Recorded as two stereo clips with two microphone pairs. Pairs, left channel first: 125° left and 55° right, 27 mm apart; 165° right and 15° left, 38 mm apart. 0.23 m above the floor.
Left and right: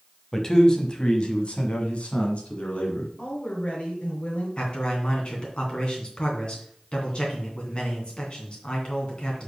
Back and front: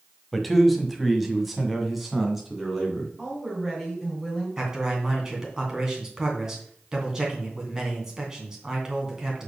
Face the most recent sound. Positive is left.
turn(degrees=85)